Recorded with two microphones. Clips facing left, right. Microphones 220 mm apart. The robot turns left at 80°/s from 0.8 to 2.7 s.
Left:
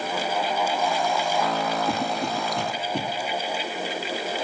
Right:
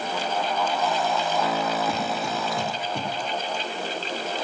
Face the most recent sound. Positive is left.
turn(degrees=65)  # may be behind; listen again after turning